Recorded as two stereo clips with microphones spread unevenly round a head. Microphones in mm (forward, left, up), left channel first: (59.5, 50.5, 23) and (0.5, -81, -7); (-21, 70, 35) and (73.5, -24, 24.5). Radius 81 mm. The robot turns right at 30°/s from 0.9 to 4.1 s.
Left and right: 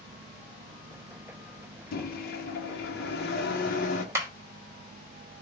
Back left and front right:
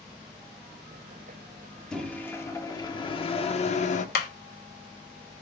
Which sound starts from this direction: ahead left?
A microwave, at 1.9 s.